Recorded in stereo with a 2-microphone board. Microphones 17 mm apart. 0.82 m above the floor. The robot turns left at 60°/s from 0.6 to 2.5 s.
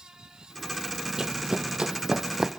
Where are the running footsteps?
35° right (ahead or behind), 1.1 m; by 2.5 s 25° right (ahead or behind), 1.8 m.